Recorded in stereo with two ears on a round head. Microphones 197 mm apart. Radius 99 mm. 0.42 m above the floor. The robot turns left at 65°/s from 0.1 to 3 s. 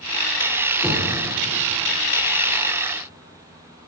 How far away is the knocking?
About 7 m.